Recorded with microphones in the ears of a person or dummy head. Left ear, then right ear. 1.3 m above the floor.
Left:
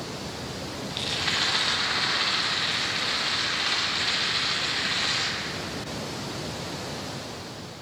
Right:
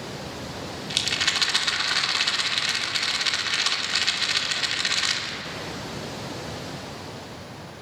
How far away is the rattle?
About 3.5 m.